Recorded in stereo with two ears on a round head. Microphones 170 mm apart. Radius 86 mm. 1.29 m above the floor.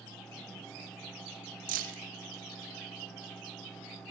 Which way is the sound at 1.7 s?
45° right (ahead or behind).